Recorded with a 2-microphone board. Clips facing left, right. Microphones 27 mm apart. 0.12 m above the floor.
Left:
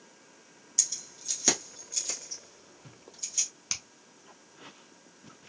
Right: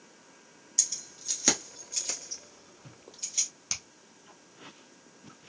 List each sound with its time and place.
0.8 s keys jangling: centre (ahead or behind), 1.2 m; by 3.5 s 35° right (ahead or behind), 2.5 m
3.7 s a finger snap: 10° left (ahead or behind), 0.9 m